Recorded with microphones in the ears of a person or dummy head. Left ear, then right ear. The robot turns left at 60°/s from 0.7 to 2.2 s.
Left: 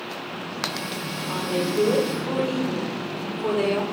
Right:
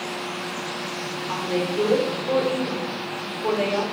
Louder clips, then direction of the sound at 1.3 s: Even; straight behind.